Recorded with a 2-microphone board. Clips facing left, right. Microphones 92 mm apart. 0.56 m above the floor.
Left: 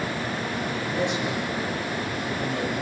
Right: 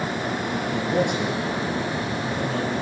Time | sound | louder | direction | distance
0.7 | a man speaking | right 5 dB | 70° right (ahead or behind) | 9.5 m